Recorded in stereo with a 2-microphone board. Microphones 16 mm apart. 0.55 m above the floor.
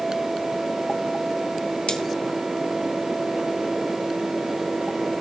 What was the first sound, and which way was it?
Cutlery clinking, 80° left.